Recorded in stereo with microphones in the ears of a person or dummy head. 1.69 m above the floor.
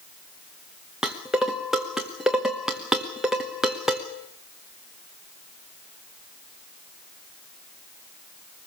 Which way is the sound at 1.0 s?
10° right (ahead or behind).